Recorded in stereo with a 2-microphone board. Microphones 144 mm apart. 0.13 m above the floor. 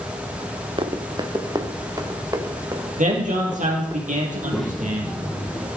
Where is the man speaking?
65° right (ahead or behind), 4.5 m.